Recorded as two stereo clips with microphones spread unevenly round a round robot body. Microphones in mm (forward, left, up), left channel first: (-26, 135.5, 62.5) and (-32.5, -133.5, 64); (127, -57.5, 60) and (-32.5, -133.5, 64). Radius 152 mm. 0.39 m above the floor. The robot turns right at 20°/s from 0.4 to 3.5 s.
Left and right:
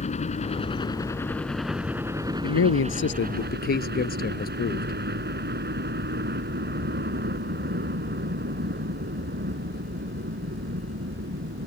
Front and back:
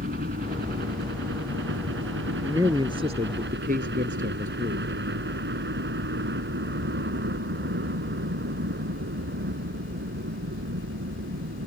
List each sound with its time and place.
0.0 s a helicopter: 155° left; by 11.7 s 145° right
2.4 s a man speaking: 125° left; by 5.0 s 145° left